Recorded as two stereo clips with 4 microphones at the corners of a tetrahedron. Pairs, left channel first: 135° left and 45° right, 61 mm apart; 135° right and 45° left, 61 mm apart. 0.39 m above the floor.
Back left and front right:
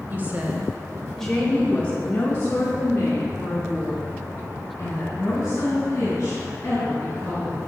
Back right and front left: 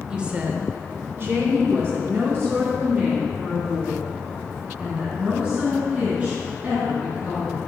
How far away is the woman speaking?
About 1.0 m.